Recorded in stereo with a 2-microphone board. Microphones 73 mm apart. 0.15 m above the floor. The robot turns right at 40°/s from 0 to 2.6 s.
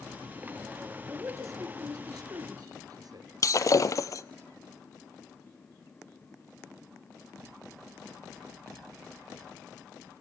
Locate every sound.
1.1 s a man speaking: 35° right (ahead or behind), 2.5 m; by 3.3 s 60° right (ahead or behind), 2.5 m
3.4 s breaking glass: 50° left (ahead or behind), 0.7 m